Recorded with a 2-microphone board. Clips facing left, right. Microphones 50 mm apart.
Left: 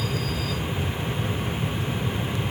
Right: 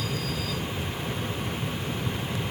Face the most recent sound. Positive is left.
No sound to turn to.